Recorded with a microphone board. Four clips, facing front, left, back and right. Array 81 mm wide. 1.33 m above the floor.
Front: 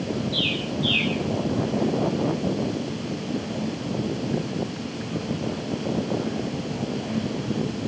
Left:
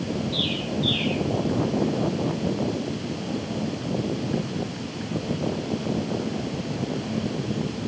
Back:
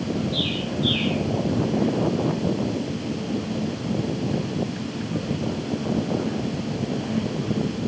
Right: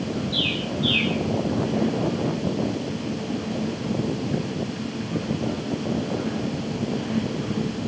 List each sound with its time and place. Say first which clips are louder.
0.3 s a bird: even, back 1 dB; 20° right, 4.5 m